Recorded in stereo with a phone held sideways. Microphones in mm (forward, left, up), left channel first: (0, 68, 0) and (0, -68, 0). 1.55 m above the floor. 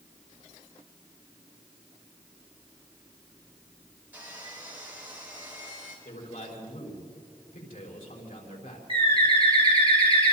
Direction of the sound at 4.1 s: 10° right (ahead or behind).